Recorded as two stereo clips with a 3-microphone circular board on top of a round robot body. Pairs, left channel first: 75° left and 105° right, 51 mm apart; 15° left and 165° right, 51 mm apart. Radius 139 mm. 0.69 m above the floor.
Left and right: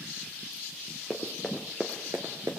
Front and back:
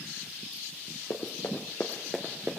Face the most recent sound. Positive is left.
turn(degrees=-115)